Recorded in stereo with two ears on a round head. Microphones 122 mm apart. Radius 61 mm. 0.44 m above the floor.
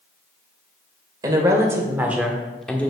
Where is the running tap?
I don't hear a running tap.